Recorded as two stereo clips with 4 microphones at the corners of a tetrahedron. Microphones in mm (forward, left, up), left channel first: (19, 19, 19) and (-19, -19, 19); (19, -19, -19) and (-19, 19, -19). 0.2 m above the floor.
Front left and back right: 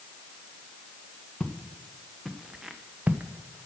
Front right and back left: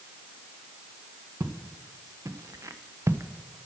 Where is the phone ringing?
No phone ringing in this recording.